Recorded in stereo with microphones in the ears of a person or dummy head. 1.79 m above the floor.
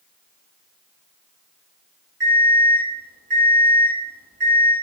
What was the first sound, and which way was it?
An alarm clock, 30° right (ahead or behind).